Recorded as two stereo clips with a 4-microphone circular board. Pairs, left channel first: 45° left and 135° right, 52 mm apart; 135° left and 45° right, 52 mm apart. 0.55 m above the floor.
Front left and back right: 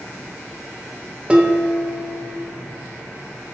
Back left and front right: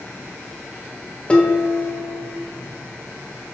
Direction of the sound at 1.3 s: Straight behind.